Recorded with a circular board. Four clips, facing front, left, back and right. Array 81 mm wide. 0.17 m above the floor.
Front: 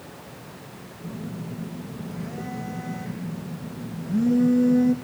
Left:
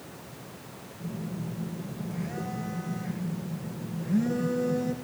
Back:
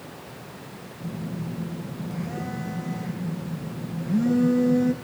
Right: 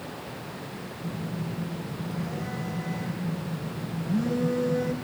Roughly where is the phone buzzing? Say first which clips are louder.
Right 1 dB, back 2 dB; behind.